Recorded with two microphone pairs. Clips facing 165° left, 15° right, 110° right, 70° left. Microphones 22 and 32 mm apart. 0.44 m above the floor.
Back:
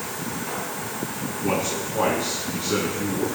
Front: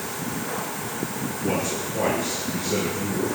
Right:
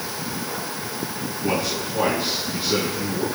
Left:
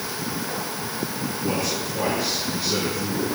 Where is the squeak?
I don't hear a squeak.